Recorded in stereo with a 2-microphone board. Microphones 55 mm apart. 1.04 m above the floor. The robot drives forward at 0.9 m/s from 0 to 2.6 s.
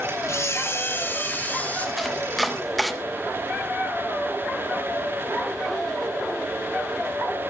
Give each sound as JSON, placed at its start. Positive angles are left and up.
{"t": 0.3, "sound": "a camera shutter", "side_deg": 60, "distance_m": 1.3}
{"t": 2.0, "sound": "chopping", "side_deg": 0, "distance_m": 1.8}